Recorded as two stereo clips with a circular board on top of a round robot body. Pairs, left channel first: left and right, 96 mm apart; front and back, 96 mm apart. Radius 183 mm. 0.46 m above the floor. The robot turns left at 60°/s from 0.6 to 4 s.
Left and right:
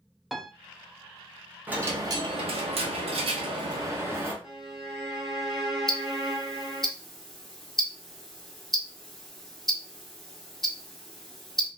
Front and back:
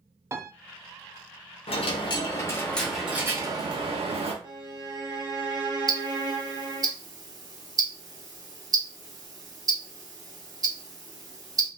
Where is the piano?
Straight behind, 0.7 m.